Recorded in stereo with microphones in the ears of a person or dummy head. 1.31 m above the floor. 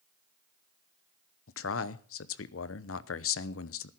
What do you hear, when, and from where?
1.5 s a man speaking: 65° left (ahead or behind), 0.9 m